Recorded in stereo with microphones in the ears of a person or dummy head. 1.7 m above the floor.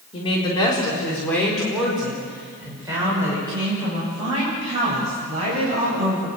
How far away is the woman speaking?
About 4.5 m.